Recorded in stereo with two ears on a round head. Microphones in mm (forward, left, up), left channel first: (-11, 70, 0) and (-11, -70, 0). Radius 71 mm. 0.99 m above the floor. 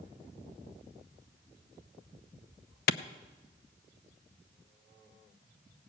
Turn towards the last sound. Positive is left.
turn(degrees=70)  # may be behind; listen again after turning